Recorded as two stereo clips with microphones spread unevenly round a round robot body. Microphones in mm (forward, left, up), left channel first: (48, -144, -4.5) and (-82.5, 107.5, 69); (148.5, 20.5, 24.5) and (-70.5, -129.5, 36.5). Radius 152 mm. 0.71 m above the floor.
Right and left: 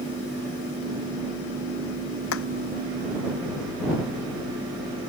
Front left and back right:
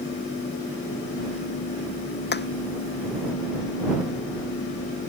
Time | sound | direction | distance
2.3 | hammering | 15° right | ?